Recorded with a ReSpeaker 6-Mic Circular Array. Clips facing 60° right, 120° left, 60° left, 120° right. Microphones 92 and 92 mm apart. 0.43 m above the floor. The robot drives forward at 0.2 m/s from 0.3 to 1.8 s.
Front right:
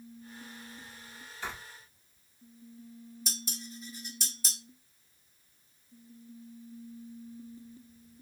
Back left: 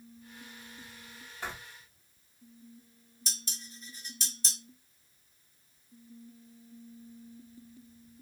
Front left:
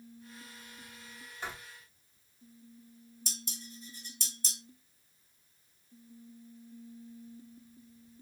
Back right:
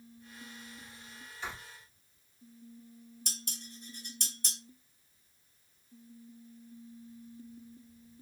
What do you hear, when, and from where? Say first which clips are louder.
1.4 s writing: even, even; 105° left, 2.5 m
3.3 s dishes clattering: front right 3 dB, front left 2 dB; 145° right, 1.2 m